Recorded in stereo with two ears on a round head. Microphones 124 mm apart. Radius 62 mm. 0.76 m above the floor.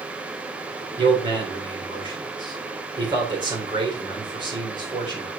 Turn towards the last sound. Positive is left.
turn(degrees=-30)  # may be behind; listen again after turning